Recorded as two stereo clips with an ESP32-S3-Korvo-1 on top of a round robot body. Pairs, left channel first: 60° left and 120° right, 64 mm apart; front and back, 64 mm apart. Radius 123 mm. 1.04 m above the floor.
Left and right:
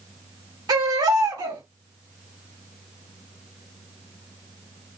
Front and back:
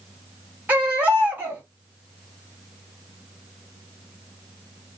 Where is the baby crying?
115° right, 1.6 m.